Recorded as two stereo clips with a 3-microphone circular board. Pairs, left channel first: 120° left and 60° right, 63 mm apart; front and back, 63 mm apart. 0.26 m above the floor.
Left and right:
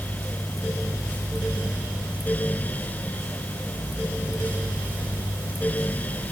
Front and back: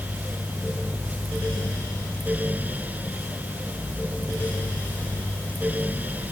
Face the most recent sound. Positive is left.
No sound to turn to.